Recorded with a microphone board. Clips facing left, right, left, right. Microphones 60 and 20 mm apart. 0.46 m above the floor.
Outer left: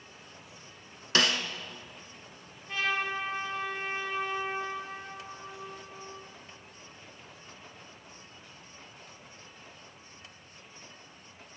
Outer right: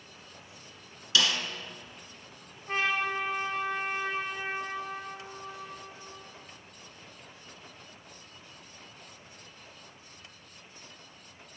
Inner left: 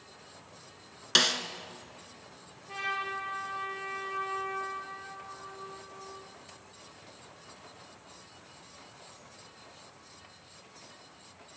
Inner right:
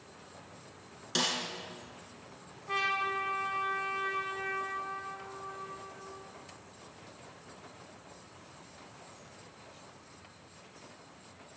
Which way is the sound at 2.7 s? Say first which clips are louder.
Outer right 2 dB, inner right 3 dB; 40° right (ahead or behind).